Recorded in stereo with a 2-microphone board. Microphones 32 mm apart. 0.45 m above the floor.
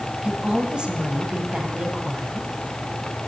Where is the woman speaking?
35° right (ahead or behind), 2.5 m.